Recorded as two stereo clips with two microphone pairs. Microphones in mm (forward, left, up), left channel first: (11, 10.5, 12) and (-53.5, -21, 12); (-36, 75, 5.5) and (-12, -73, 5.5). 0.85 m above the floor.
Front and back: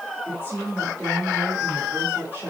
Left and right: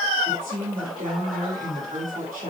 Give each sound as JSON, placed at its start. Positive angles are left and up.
{"t": 0.2, "sound": "a woman speaking", "azimuth_deg": -90, "distance_m": 6.5}